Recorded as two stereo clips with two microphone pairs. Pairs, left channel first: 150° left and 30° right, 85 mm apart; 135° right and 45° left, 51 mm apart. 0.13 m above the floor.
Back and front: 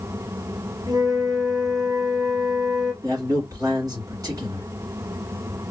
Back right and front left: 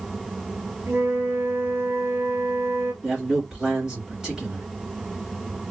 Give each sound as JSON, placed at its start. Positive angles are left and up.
{"t": 0.9, "sound": "a flute", "azimuth_deg": 5, "distance_m": 1.3}
{"t": 3.0, "sound": "a man speaking", "azimuth_deg": -15, "distance_m": 2.0}